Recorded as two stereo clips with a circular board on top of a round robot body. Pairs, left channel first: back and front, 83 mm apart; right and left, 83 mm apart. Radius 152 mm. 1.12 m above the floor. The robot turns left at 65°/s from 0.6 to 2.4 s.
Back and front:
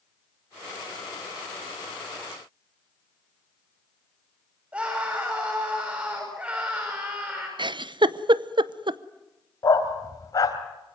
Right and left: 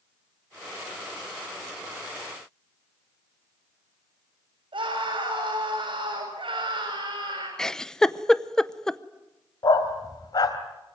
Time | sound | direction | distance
4.7 | a scream | 70° left | 7 m
7.6 | a giggle | 10° right | 0.8 m
9.6 | a dog barking | 130° right | 2 m